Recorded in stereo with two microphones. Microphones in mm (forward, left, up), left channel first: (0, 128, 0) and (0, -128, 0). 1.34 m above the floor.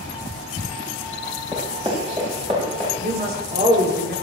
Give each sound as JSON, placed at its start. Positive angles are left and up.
{"t": 1.5, "sound": "running footsteps", "side_deg": -20, "distance_m": 9.5}
{"t": 3.0, "sound": "a woman speaking", "side_deg": -40, "distance_m": 4.0}